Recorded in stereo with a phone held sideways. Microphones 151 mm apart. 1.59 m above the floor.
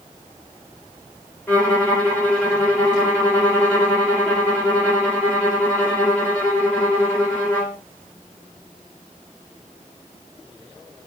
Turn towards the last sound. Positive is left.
turn(degrees=10)  # may be behind; listen again after turning